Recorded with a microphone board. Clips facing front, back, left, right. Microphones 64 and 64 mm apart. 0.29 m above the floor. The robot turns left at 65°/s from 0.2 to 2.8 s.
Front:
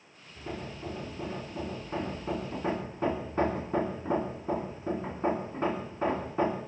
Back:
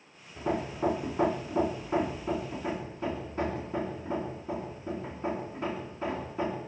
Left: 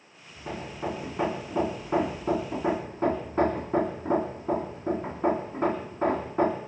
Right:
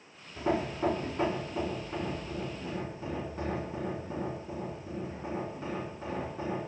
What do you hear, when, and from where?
0.4 s hammering: 150° right, 4 m; by 6.6 s 50° left, 4 m